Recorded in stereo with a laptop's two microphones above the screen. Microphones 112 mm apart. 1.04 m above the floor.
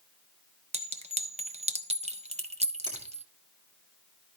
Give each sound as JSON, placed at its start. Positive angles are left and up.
{"t": 0.7, "sound": "a clink", "side_deg": -75, "distance_m": 0.8}
{"t": 2.9, "sound": "a finger snap", "side_deg": -40, "distance_m": 3.0}